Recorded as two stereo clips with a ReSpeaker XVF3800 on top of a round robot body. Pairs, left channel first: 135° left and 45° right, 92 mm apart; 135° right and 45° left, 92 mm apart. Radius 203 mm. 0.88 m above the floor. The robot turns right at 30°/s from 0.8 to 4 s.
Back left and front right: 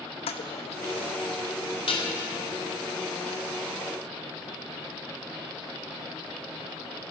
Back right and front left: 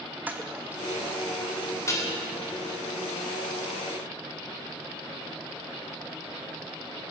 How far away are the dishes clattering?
About 2.5 m.